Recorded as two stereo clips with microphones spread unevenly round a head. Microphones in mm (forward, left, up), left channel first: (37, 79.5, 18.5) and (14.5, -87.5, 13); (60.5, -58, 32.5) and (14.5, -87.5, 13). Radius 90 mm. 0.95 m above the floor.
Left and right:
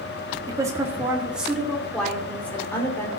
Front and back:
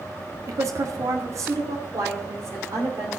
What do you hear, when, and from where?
0.5 s a woman speaking: 170° right, 1.7 m; by 3.1 s 160° left, 3 m